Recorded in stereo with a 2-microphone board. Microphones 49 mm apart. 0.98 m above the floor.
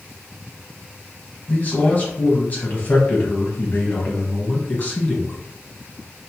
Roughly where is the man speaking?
Left.